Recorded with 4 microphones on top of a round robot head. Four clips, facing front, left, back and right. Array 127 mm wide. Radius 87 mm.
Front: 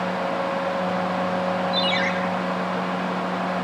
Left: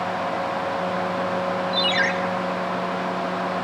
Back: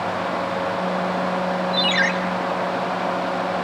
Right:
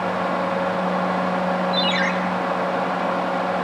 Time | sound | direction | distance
1.7 | a ringtone | 135° left | 3.5 m